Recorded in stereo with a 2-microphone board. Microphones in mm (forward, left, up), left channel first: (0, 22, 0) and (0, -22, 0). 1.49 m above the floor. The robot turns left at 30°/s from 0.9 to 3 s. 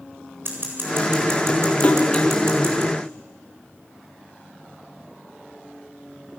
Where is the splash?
35° left (ahead or behind), 2 m; by 2.3 s 20° left (ahead or behind), 2 m.